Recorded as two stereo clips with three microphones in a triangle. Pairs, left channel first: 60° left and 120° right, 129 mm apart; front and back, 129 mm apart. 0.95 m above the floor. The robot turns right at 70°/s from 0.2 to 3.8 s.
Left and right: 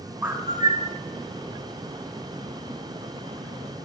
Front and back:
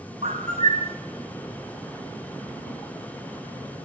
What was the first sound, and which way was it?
A bird, 165° left.